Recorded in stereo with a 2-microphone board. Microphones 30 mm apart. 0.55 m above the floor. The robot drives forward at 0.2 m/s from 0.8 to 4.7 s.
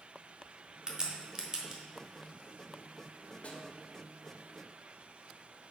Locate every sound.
0.9 s a crack: 30° right (ahead or behind), 1.0 m; by 1.8 s 25° right (ahead or behind), 1.1 m
3.4 s a snare drum: 50° left (ahead or behind), 1.0 m